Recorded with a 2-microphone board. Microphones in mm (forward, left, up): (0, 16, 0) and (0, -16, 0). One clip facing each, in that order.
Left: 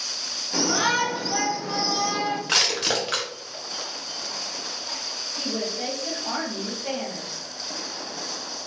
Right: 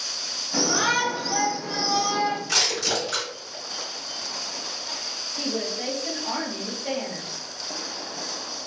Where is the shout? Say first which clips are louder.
Even; 30° left (ahead or behind), 1.3 m; by 2.4 s 20° left (ahead or behind), 1.1 m.